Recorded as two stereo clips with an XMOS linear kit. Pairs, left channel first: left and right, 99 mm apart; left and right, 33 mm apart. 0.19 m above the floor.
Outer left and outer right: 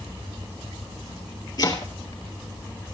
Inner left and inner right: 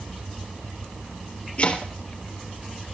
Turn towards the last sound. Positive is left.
turn(degrees=40)  # may be behind; listen again after turning